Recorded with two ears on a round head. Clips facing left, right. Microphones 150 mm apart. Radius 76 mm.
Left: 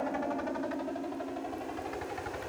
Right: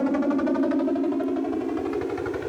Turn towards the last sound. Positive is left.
turn(degrees=-65)  # may be behind; listen again after turning